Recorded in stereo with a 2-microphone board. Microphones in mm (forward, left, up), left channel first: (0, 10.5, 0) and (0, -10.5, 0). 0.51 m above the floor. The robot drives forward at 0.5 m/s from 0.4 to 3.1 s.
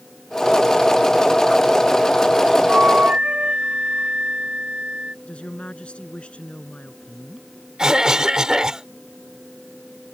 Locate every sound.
2.7 s a flute: 75° right (ahead or behind); by 5.2 s 70° right (ahead or behind)
5.2 s a woman speaking: 75° left (ahead or behind)
7.8 s a cough: 30° right (ahead or behind)